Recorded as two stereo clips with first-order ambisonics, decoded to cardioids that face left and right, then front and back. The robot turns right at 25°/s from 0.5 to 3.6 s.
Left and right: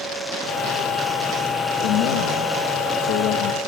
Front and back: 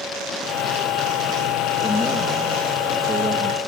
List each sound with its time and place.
1.8 s a man speaking: 75° left, 1.2 m; by 3.6 s 120° left, 1.2 m